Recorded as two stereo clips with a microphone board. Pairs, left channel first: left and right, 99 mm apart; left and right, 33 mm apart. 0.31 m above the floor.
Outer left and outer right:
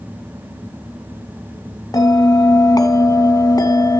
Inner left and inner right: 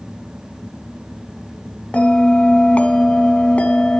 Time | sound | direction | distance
1.9 | a bell | 40° left (ahead or behind) | 1.0 m